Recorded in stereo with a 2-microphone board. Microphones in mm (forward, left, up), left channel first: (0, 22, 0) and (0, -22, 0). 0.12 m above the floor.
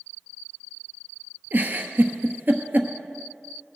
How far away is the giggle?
About 1.1 m.